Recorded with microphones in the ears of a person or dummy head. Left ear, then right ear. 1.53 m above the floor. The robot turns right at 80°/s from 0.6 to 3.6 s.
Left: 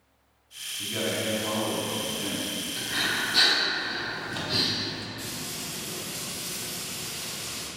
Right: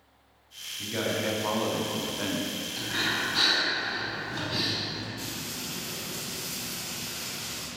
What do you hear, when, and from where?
0.8 s a man speaking: 175° left, 0.7 m; by 2.5 s 45° right, 0.7 m
2.8 s breathing: straight ahead, 1.0 m; by 5.1 s 65° left, 1.0 m
5.2 s frying: 25° right (ahead or behind), 1.8 m